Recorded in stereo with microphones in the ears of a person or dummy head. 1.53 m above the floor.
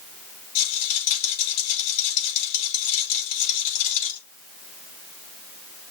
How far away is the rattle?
About 6 m.